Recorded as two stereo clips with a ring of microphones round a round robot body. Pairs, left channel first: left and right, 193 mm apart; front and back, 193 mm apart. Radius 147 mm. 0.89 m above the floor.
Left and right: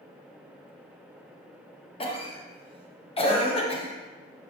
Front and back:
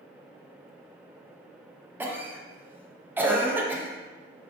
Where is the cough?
110° left, 0.6 m.